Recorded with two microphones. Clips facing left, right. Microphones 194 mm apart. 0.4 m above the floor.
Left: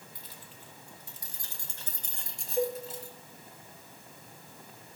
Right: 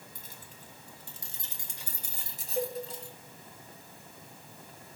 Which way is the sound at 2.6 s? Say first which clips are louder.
Left 3 dB; 70° right (ahead or behind).